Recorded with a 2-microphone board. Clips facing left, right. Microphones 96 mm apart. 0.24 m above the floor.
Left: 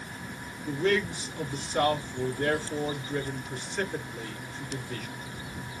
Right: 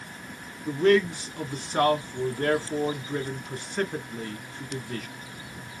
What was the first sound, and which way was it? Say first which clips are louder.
A man speaking: right 6 dB; 50° right (ahead or behind).